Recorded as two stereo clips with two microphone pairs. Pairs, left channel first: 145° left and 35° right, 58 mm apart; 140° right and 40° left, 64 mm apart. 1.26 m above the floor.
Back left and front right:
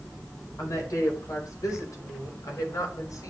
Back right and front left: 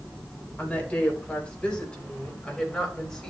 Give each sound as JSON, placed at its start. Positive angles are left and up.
{"t": 0.6, "sound": "a woman speaking", "azimuth_deg": 150, "distance_m": 4.5}